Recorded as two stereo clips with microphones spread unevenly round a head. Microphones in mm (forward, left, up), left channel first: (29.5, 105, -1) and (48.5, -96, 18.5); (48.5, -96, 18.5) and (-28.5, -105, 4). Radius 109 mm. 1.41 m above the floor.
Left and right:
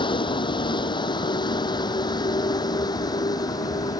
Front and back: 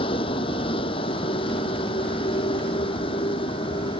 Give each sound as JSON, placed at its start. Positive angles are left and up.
{"t": 0.0, "sound": "a vehicle", "azimuth_deg": 30}